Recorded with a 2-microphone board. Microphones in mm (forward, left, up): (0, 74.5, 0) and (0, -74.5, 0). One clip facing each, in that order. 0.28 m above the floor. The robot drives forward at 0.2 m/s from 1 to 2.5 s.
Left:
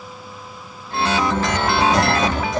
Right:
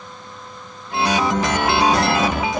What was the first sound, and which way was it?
Writing, 5° right (ahead or behind).